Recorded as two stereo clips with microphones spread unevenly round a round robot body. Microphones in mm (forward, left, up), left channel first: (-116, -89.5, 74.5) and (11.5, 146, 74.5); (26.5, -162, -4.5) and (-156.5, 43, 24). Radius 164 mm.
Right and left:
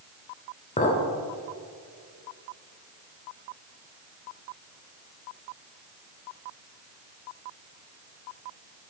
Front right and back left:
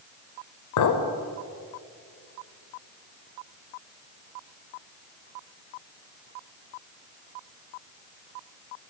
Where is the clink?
55° right, 0.9 m.